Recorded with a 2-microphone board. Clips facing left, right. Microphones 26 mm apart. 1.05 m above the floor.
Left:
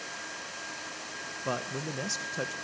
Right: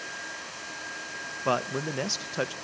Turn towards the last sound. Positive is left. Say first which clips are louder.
# right 7 dB
turn(degrees=-35)  # may be behind; listen again after turning